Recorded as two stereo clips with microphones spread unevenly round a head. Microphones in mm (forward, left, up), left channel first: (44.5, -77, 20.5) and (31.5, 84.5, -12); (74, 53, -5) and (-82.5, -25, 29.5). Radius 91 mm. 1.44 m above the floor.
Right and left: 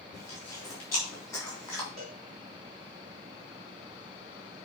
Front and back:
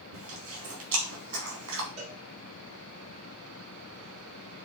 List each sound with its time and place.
0.1 s chewing: 165° right, 3.5 m
2.0 s a cowbell: 155° left, 4 m